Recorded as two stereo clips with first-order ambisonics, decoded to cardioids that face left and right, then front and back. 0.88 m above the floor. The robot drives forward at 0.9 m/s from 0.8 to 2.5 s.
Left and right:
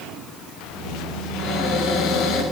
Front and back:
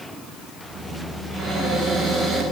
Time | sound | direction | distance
1.3 | a cupboard door | 80° left | 5.5 m